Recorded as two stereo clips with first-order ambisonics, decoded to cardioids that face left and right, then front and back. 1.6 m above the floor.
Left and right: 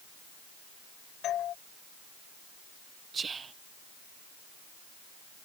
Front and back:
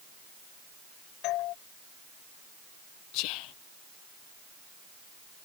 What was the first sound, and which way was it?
A doorbell, 35° left.